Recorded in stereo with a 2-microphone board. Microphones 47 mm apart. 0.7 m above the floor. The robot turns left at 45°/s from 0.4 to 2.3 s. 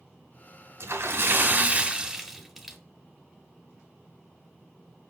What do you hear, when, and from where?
0.8 s a splash: 110° right, 1.2 m; by 2.8 s 175° right, 1.2 m